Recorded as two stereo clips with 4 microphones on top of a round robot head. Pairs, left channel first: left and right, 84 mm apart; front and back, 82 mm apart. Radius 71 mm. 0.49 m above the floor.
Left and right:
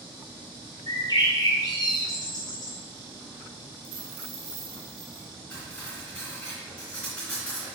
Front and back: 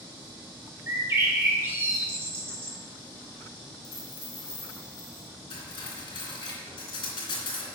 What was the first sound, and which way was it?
A bird, 125° left.